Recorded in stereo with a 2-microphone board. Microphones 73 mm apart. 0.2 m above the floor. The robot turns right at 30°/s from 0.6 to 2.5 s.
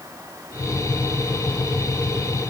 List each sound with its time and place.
Only background noise.